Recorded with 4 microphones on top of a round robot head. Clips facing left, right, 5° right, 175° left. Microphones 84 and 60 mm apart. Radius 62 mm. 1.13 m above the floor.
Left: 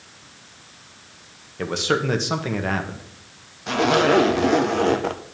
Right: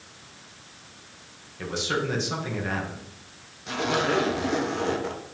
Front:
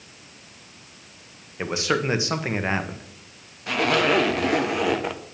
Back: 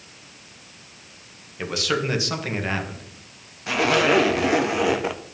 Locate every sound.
1.6 s a man speaking: 60° left, 1.3 m
3.7 s a zipper: 90° left, 0.8 m